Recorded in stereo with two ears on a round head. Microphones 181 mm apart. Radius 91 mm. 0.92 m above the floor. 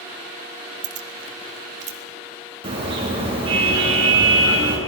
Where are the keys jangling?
60° right (ahead or behind), 1.1 m; by 2.0 s 35° right (ahead or behind), 2.5 m.